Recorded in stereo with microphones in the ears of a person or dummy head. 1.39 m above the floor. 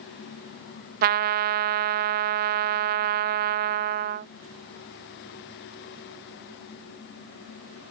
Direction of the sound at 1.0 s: 55° right (ahead or behind).